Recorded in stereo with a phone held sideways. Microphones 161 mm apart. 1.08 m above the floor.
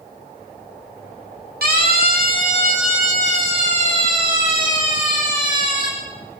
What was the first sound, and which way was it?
A siren, 75° right (ahead or behind).